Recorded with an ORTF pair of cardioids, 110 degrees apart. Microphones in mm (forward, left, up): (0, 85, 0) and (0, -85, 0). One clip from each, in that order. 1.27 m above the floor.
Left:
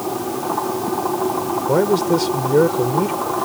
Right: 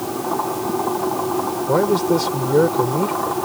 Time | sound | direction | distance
1.7 | a man speaking | 5° left | ?